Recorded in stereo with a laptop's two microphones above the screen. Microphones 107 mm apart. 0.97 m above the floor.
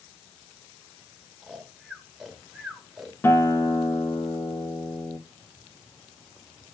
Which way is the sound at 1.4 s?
5° right (ahead or behind).